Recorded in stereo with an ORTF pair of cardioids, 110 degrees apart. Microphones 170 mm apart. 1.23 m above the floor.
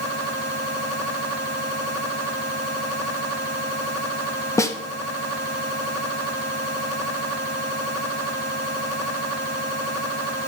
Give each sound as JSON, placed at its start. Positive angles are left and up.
{"t": 4.6, "sound": "a snare drum", "azimuth_deg": 15, "distance_m": 1.6}